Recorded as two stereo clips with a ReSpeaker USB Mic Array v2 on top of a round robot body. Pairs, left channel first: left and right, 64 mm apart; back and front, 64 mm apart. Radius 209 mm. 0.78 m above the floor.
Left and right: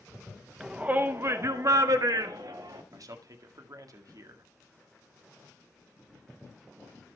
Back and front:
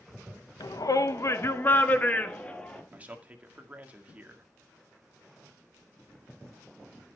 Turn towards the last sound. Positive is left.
turn(degrees=-65)